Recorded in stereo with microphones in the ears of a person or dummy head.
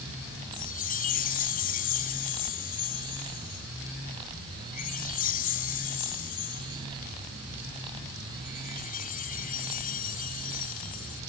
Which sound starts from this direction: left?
A chime, at 0.5 s.